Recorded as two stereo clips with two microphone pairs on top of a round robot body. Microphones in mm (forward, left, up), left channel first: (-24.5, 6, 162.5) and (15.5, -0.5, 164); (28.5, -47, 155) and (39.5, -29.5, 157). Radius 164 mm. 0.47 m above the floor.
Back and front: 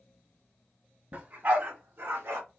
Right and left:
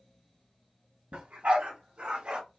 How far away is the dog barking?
About 1.9 m.